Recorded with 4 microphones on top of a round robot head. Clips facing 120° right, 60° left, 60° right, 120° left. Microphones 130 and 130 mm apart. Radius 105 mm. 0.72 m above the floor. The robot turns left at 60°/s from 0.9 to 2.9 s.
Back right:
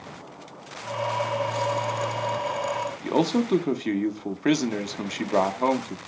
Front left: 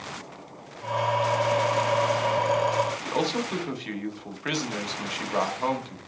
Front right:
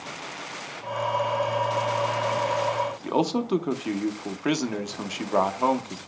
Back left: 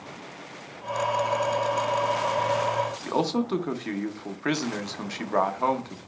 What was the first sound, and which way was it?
A man speaking, 125° right.